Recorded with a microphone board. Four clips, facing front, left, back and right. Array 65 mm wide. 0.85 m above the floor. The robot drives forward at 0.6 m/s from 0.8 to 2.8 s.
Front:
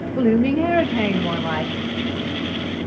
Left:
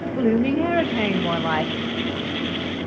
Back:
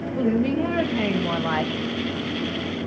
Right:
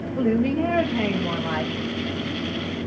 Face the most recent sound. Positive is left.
turn(degrees=155)